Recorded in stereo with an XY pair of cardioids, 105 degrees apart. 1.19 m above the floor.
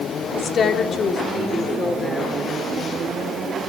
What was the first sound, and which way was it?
A woman speaking, 55° left.